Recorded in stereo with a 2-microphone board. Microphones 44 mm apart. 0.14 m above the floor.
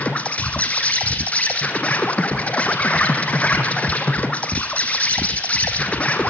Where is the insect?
30° left (ahead or behind), 2.5 m.